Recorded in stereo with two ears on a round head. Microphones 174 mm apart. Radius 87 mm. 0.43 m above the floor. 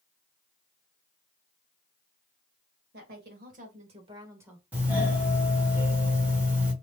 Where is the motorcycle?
I don't hear a motorcycle.